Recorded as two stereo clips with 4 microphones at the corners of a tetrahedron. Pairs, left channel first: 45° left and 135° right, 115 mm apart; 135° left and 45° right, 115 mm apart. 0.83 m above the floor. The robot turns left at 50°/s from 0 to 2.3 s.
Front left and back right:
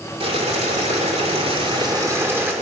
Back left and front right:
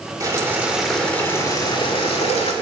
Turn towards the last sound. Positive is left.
turn(degrees=155)